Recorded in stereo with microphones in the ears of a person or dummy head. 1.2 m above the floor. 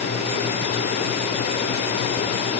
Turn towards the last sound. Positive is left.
No sound to turn to.